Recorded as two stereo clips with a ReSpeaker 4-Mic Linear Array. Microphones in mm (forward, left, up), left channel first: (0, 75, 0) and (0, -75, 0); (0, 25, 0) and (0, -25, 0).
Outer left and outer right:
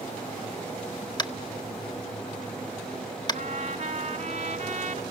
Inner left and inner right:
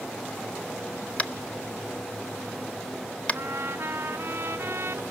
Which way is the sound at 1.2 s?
25° left (ahead or behind).